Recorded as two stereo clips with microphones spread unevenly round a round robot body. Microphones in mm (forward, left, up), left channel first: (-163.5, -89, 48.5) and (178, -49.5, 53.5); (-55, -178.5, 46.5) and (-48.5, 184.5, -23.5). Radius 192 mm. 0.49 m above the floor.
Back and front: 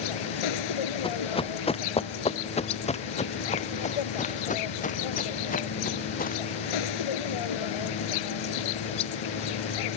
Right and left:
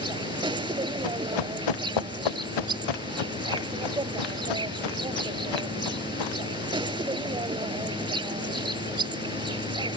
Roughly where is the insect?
Behind.